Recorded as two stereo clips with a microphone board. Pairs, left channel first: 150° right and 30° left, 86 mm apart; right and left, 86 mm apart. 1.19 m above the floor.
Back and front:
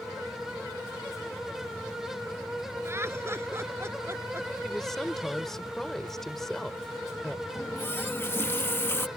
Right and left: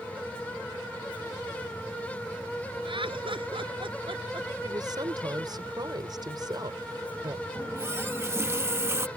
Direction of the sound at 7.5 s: 150° left.